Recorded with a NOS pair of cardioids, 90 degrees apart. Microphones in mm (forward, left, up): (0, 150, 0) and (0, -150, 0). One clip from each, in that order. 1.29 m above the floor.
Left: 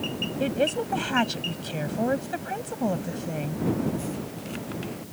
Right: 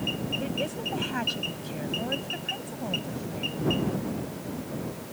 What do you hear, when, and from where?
0.4 s a woman speaking: 55° left